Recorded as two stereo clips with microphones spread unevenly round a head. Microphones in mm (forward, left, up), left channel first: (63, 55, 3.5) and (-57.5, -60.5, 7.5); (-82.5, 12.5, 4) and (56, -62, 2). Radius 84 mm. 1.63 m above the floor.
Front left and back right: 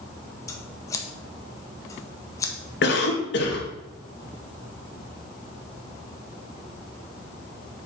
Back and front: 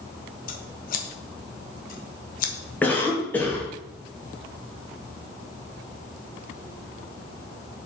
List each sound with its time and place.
0.5 s scissors: 115° left, 1.1 m
2.8 s a cough: 70° left, 2 m